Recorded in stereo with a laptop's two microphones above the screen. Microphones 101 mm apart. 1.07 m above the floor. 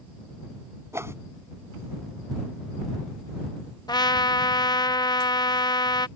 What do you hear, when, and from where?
0.9 s a whoosh: 25° right (ahead or behind)
3.9 s a trumpet: 40° left (ahead or behind)